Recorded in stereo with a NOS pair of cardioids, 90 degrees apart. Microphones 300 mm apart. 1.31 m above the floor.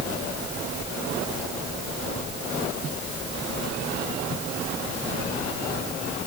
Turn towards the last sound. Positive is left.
No sound to turn to.